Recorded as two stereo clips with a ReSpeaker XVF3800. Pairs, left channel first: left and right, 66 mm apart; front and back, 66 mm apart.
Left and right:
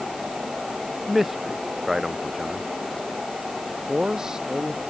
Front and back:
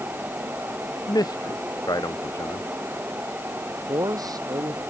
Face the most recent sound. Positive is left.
turn(degrees=-175)